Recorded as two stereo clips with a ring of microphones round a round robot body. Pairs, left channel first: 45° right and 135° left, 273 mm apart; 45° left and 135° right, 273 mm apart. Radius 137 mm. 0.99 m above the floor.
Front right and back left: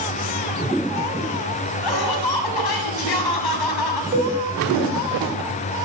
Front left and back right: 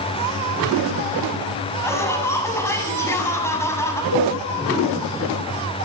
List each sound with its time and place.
1.8 s laughter: 35° right, 7 m
4.1 s a cowbell: 75° left, 8.5 m